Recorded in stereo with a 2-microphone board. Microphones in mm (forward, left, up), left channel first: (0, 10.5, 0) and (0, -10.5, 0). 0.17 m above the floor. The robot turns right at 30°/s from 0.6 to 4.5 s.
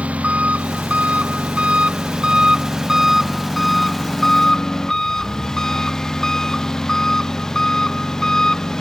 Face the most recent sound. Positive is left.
turn(degrees=25)